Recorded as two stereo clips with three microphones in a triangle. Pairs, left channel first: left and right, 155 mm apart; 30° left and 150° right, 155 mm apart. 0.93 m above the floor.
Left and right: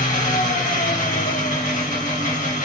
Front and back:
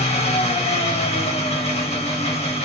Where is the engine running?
70° left, 0.8 m.